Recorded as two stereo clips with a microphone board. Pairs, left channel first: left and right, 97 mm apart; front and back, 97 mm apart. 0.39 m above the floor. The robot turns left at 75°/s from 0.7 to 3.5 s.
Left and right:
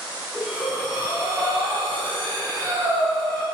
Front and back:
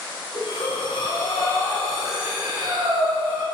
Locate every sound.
0.3 s breathing: 10° left, 2.5 m; by 3.4 s 165° left, 2.5 m